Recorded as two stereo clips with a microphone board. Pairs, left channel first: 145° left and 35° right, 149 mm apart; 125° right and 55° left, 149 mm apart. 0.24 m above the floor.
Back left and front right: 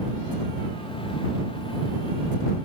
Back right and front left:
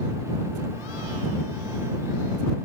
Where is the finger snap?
No finger snap in this recording.